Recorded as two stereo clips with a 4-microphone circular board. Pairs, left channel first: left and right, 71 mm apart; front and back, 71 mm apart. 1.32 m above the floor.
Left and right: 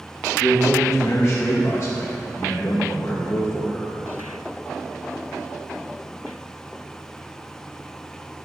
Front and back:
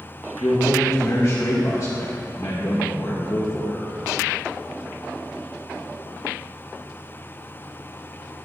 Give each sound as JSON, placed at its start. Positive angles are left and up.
{"t": 0.4, "sound": "a man speaking", "azimuth_deg": 45, "distance_m": 1.0}